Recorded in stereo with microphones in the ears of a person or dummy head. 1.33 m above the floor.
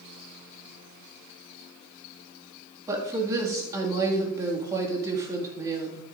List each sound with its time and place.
2.9 s a woman speaking: 10° right (ahead or behind), 2.5 m